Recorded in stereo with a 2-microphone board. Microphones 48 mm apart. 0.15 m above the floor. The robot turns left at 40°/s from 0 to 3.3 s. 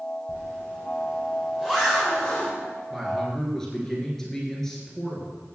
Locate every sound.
0.3 s a zipper: 65° right (ahead or behind), 5.5 m; by 2.5 s 20° left (ahead or behind), 5.5 m
2.9 s a man speaking: 5° right (ahead or behind), 2.5 m; by 5.4 s 10° left (ahead or behind), 2.5 m